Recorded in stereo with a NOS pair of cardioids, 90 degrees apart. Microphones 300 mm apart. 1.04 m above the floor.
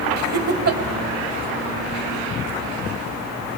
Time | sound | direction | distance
0.2 | laughter | 55° right | 2 m